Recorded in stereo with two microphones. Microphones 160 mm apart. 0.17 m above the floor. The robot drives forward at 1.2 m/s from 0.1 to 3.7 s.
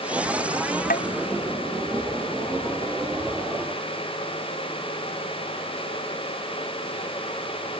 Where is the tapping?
65° left (ahead or behind).